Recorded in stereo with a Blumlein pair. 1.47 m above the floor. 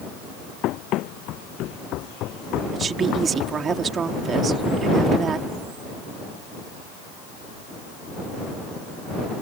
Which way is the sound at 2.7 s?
20° right.